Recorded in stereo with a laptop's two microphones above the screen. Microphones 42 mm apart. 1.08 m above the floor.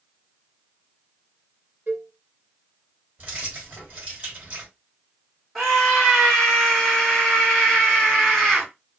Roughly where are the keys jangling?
Right.